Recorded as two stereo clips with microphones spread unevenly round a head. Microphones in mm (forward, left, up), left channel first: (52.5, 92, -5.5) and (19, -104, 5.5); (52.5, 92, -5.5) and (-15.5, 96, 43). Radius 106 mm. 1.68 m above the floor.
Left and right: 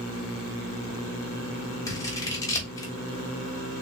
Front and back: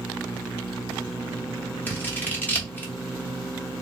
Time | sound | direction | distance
1.9 | scissors | 130° left | 1.2 m